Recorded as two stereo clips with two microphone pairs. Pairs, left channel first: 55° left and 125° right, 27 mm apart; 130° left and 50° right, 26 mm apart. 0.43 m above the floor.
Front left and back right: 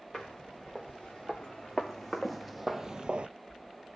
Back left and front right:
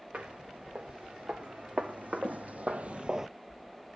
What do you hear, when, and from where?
0.1 s footsteps: 25° right, 4 m; by 3.3 s 120° right, 0.5 m